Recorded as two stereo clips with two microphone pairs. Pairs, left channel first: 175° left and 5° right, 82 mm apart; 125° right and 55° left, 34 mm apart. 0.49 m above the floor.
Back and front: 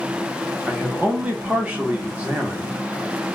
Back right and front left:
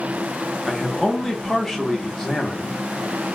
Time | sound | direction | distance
0.7 | a man speaking | 55° right | 0.9 m